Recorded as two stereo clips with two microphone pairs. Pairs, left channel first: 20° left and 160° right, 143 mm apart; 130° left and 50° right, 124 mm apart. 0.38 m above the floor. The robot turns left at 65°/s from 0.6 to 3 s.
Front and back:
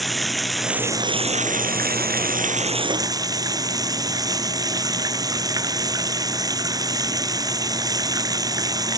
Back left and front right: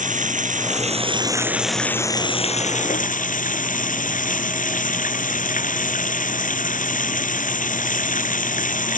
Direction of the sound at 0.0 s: 70° right.